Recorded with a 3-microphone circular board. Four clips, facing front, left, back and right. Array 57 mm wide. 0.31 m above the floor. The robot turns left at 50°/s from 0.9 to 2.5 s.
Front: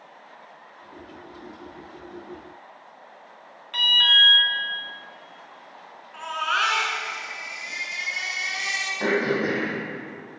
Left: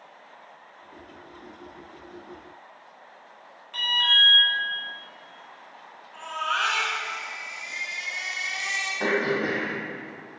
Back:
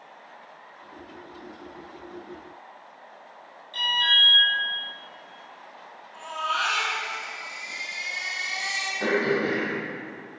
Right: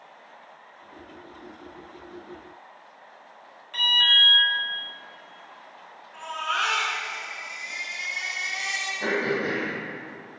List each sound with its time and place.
3.7 s an alarm: 5° right, 3.5 m
6.1 s a baby crying: 5° left, 3 m
9.0 s throat clearing: 75° left, 5 m